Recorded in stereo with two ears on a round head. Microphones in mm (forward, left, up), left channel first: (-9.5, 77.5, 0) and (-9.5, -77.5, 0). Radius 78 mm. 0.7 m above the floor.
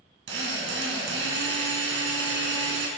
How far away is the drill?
About 3 m.